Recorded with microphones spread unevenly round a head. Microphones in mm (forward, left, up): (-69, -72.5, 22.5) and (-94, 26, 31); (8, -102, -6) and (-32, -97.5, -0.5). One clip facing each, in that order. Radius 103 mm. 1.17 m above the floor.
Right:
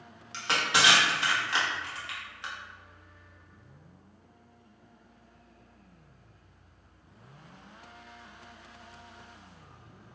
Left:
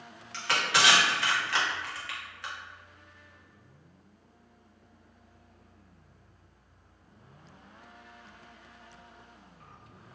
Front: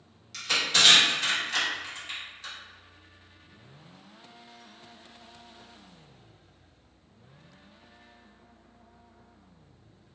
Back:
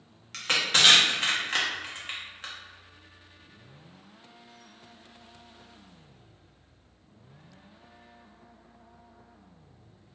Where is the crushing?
145° right, 1.0 m.